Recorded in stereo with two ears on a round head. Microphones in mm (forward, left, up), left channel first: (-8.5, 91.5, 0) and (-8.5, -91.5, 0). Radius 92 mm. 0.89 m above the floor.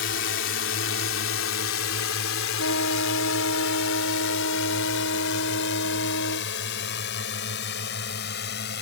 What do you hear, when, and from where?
0.0 s a drone: 60° left (ahead or behind); by 8.8 s 55° left (ahead or behind)
2.6 s a trumpet: 75° left (ahead or behind)